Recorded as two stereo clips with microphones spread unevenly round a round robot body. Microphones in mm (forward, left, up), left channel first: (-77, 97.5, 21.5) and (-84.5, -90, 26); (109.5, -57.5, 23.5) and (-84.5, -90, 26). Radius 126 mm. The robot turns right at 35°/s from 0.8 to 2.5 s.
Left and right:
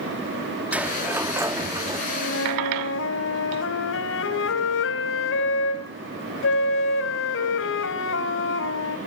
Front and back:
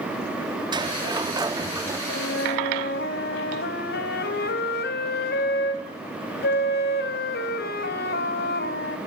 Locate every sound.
0.7 s a sliding door: 165° right, 0.8 m; by 2.0 s 125° right, 0.8 m
2.1 s a flute: 45° left, 2 m; by 9.0 s 60° left, 2 m